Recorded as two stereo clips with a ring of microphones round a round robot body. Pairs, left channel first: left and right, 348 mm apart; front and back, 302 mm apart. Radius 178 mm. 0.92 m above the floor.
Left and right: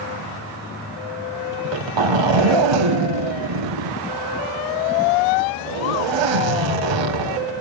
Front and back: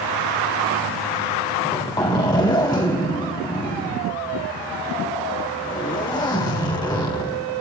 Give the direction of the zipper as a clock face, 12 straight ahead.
3 o'clock.